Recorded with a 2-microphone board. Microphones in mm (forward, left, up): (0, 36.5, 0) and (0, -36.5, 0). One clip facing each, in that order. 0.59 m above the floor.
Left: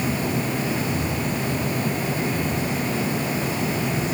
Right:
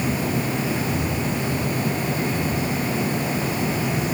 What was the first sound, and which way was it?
Only background noise.